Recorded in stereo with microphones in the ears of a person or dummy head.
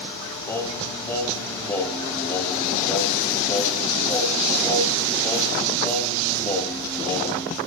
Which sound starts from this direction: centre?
Singing, at 0.5 s.